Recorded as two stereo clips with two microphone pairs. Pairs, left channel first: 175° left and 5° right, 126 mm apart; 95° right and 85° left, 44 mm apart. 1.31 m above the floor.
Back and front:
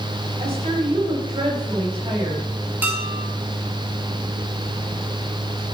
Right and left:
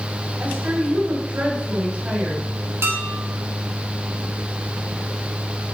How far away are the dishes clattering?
About 2.5 m.